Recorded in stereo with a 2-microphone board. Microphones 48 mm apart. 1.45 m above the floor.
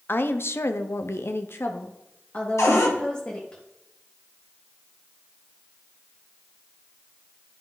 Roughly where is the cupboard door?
Left.